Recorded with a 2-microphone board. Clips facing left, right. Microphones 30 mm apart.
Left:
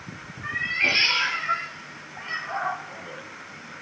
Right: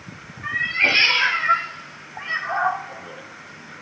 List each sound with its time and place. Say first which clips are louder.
0.4 s a cat meowing: right 4 dB; 15° right (ahead or behind), 1.1 m; by 3.8 s 25° right (ahead or behind), 2.0 m